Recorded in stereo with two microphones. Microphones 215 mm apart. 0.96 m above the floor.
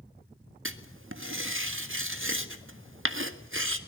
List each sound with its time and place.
0.7 s writing: 70° right (ahead or behind), 1.7 m